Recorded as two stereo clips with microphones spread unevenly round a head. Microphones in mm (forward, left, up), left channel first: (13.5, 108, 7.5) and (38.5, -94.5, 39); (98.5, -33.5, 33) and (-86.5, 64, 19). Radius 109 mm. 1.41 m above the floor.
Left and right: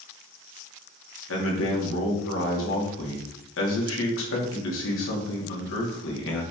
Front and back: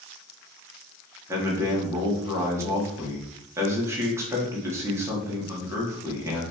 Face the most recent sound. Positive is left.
turn(degrees=75)